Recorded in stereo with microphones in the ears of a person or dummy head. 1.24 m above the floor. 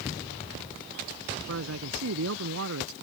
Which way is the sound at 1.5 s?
85° right.